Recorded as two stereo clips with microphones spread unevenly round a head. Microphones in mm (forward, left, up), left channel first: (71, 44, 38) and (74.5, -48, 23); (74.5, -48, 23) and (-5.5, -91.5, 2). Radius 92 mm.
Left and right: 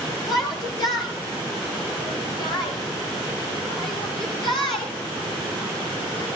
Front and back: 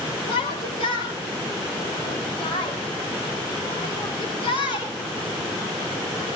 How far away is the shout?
About 5 m.